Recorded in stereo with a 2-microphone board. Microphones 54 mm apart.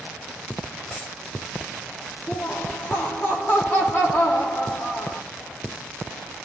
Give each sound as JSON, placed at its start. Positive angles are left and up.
{"t": 0.9, "sound": "a dropped coin", "side_deg": 20, "distance_m": 3.0}
{"t": 2.3, "sound": "laughter", "side_deg": 45, "distance_m": 6.5}